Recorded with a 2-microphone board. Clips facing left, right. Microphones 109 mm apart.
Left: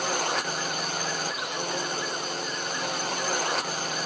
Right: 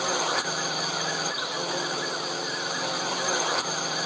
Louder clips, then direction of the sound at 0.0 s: Right 1 dB; 5° right (ahead or behind).